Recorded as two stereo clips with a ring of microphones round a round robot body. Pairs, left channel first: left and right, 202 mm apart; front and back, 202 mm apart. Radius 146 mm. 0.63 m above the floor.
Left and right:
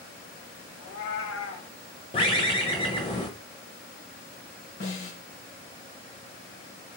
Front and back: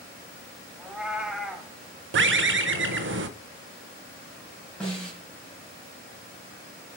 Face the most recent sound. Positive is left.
turn(degrees=85)